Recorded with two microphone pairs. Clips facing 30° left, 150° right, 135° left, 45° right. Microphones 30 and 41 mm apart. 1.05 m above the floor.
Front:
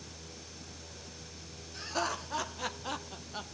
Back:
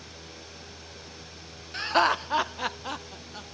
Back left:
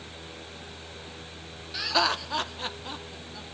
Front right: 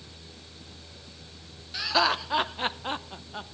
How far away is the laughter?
About 0.9 m.